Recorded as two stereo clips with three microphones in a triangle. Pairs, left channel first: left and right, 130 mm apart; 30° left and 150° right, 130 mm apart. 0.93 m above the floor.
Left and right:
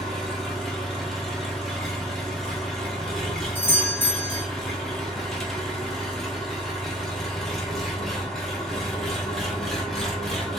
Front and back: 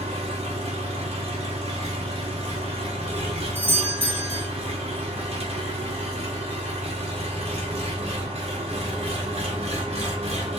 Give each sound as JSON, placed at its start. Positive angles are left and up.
{"t": 0.0, "sound": "an engine running", "azimuth_deg": 175, "distance_m": 1.0}
{"t": 3.5, "sound": "a doorbell", "azimuth_deg": 150, "distance_m": 0.9}